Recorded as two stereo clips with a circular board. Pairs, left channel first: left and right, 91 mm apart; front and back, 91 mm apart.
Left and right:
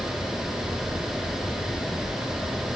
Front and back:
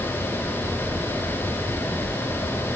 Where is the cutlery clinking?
No cutlery clinking in this recording.